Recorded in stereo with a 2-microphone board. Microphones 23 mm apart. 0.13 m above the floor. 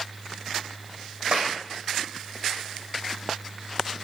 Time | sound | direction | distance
1.3 | a clap | 50° right (ahead or behind) | 7 m